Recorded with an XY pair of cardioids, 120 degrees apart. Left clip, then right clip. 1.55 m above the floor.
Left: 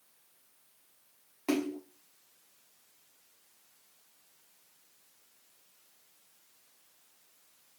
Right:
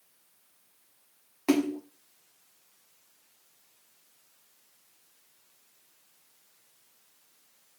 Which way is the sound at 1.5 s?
30° right.